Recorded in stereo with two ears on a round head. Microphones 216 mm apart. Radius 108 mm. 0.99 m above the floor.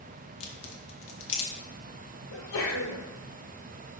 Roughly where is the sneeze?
Left.